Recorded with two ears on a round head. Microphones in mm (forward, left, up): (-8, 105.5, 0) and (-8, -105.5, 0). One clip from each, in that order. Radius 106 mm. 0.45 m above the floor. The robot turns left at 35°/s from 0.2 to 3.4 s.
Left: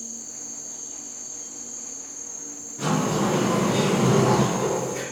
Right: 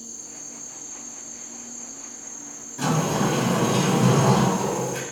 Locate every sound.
0.0 s an insect: 125° left, 1.0 m; by 5.1 s 10° left, 1.0 m
2.8 s a sliding door: 35° right (ahead or behind), 0.8 m; by 5.0 s 40° right (ahead or behind), 0.8 m